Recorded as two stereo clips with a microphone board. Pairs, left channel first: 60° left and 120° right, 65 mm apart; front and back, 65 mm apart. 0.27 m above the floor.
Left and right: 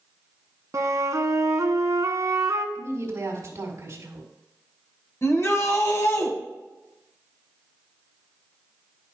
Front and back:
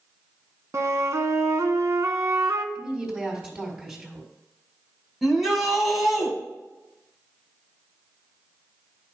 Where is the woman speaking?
110° right, 2 m.